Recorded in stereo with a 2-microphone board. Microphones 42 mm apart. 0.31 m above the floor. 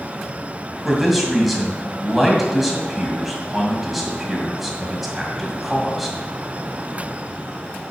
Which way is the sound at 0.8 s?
Centre (ahead or behind).